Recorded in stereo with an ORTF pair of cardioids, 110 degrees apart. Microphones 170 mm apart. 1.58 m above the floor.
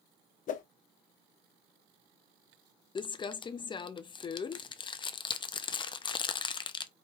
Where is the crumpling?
30° left, 0.6 m.